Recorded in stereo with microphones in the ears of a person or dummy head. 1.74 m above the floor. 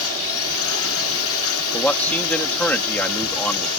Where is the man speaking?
10° left (ahead or behind).